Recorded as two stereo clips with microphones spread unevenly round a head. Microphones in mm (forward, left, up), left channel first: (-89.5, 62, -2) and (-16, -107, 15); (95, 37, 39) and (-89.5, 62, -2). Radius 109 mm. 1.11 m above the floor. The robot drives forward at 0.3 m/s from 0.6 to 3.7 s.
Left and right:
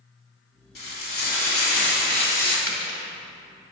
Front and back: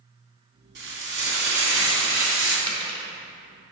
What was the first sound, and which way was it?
Frying, 145° left.